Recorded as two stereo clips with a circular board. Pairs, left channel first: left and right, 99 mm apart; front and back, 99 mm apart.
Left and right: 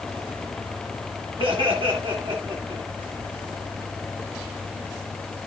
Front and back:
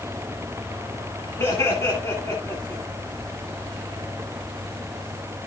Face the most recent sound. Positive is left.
turn(degrees=-60)